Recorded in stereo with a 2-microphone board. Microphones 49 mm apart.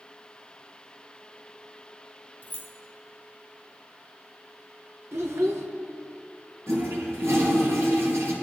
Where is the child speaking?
65° right (ahead or behind), 1.9 m.